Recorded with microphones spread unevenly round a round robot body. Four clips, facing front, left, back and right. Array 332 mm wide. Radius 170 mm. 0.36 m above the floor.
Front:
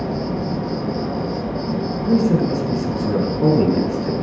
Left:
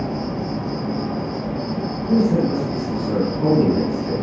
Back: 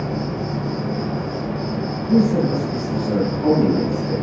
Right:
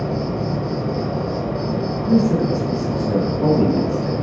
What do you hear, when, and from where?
0.0 s an insect: 80° right, 1.3 m
2.0 s a man speaking: 45° right, 5 m